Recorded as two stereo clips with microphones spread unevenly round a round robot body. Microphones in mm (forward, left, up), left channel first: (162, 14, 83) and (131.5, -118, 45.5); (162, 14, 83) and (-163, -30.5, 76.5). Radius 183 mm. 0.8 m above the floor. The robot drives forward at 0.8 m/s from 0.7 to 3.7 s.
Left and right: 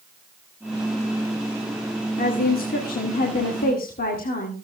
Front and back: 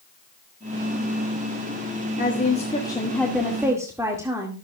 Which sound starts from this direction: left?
A woman speaking, at 2.2 s.